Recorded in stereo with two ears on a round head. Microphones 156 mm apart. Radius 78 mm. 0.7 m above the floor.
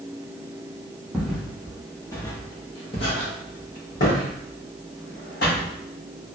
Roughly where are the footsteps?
Centre.